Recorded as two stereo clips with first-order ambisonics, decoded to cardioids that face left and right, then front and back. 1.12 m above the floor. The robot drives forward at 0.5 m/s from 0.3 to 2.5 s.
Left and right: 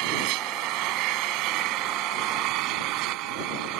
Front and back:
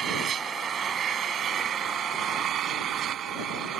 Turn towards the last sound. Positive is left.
turn(degrees=-120)